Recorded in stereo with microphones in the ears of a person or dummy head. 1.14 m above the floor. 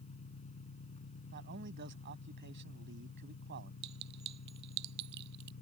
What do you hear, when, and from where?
0.0 s an engine running: 35° left (ahead or behind)
1.3 s a man speaking: 55° right (ahead or behind)
3.8 s a clink: 55° right (ahead or behind)